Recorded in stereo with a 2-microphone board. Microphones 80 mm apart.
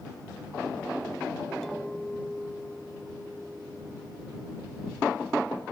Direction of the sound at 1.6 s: 5° left (ahead or behind).